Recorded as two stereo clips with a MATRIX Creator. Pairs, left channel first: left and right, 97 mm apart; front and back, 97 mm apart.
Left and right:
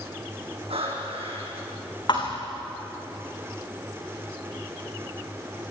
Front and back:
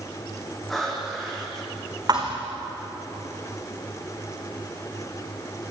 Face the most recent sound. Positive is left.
turn(degrees=130)